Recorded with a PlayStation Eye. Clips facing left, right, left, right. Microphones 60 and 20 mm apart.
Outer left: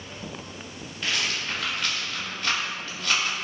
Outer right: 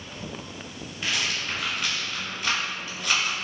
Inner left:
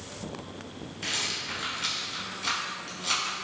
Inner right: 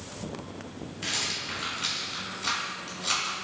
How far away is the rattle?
About 1.5 m.